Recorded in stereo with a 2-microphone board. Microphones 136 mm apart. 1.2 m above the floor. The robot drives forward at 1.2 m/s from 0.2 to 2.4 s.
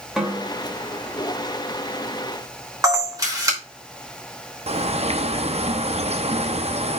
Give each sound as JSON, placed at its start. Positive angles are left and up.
{"t": 0.2, "sound": "a snare drum", "side_deg": -5, "distance_m": 2.5}
{"t": 2.8, "sound": "a camera shutter", "side_deg": -25, "distance_m": 3.0}
{"t": 4.7, "sound": "a bird", "side_deg": -50, "distance_m": 0.8}